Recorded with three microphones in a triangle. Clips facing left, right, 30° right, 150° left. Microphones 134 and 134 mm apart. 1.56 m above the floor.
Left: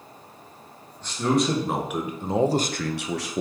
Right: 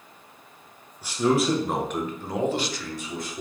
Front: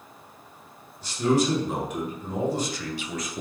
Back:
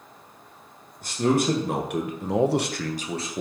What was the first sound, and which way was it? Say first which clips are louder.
A man speaking: right 1 dB, back 1 dB; 170° right.